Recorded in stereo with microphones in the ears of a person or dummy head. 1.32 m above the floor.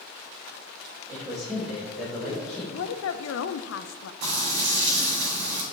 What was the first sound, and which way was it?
A man speaking, 5° right (ahead or behind).